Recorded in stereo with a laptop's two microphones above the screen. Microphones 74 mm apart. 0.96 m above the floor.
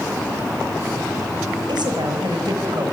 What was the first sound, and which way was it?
A woman speaking, 80° right.